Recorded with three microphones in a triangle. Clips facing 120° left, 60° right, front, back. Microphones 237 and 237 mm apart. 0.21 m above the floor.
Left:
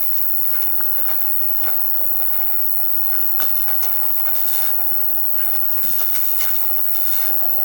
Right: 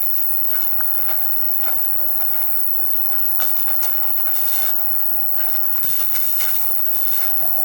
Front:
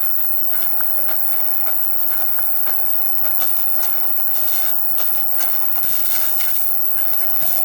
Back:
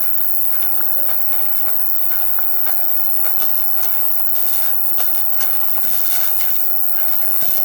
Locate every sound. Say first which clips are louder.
0.0 s an insect: right 1 dB, even; straight ahead, 0.8 m